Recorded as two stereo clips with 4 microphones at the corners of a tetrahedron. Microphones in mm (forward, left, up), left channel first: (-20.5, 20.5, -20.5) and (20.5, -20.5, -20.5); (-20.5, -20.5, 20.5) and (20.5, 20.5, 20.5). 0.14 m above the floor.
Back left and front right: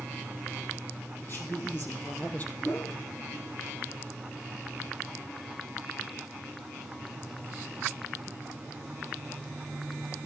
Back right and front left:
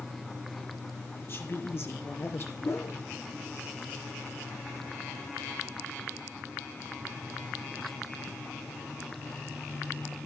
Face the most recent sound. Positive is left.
turn(degrees=-175)